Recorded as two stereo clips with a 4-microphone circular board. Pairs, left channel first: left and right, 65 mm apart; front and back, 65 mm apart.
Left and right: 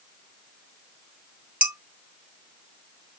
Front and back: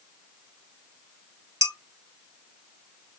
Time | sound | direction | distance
1.6 | dishes clattering | 155° right | 1.8 m